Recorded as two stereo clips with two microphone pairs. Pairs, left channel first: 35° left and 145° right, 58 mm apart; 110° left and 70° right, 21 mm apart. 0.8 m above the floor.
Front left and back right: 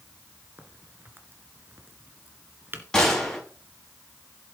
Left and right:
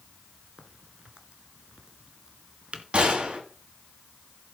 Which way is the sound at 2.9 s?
45° right.